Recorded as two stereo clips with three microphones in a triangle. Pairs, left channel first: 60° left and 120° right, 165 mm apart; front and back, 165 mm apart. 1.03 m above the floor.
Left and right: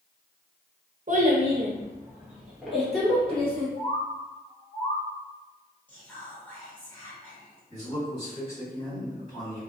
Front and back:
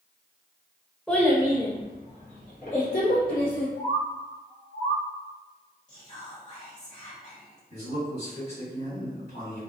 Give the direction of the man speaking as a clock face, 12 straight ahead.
12 o'clock.